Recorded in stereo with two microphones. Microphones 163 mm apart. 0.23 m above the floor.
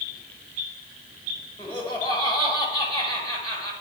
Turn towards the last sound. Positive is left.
turn(degrees=15)  # may be behind; listen again after turning